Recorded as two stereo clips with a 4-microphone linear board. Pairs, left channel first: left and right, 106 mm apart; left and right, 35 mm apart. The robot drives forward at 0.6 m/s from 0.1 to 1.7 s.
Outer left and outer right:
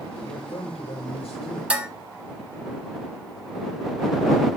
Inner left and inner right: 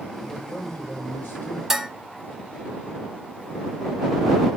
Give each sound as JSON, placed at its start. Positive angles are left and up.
{"t": 0.2, "sound": "a man speaking", "side_deg": 75, "distance_m": 6.0}
{"t": 1.7, "sound": "dishes clattering", "side_deg": -10, "distance_m": 0.9}